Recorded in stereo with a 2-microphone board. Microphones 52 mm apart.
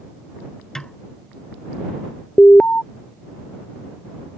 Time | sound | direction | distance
0.8 | a snare drum | 10° left (ahead or behind) | ?
2.4 | an alarm | 30° left (ahead or behind) | ?